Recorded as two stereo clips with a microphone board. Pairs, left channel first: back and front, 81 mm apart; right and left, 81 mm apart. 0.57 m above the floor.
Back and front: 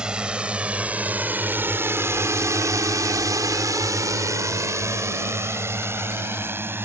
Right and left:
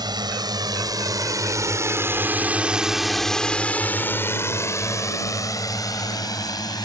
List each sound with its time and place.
0.0 s a drone: 80° left; by 6.9 s 60° right